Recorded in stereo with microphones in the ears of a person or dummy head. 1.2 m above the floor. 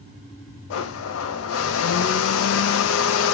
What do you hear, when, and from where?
0.7 s a blender: 80° left, 0.5 m